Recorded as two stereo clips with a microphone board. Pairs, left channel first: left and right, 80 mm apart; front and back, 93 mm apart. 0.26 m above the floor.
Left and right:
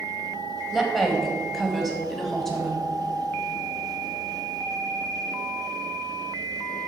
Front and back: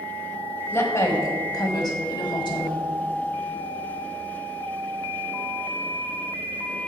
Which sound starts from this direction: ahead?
A woman speaking, at 0.7 s.